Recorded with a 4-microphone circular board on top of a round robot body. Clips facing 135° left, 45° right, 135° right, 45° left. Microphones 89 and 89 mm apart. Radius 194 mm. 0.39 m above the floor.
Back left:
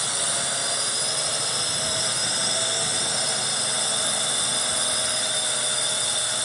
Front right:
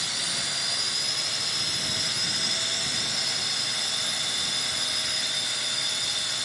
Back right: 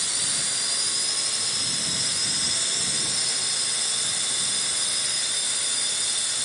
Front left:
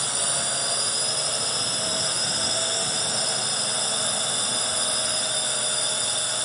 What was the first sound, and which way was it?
A drone, 85° left.